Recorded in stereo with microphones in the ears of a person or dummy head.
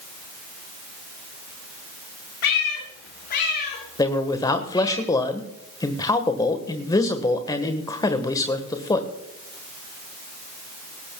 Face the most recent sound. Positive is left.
turn(degrees=15)  # may be behind; listen again after turning